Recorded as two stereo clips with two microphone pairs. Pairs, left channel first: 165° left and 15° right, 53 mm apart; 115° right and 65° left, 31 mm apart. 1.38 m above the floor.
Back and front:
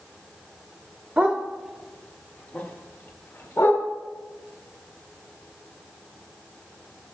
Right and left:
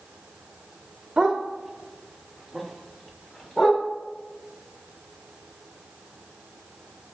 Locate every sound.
1.2 s a dog barking: 15° left, 1.0 m; by 3.8 s 170° left, 1.6 m